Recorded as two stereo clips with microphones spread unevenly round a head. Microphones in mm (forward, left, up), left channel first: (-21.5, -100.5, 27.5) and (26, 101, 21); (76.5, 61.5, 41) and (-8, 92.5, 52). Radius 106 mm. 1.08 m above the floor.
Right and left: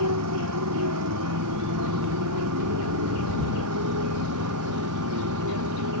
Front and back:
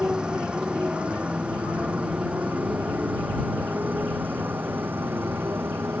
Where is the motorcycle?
80° left; by 6.0 s 95° left.